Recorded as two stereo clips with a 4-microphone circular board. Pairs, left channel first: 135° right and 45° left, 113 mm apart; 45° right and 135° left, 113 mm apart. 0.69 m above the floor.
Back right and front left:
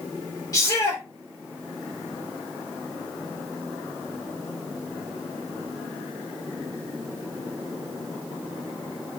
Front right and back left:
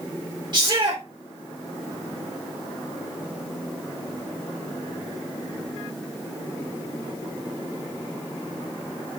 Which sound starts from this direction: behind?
A shout, at 0.5 s.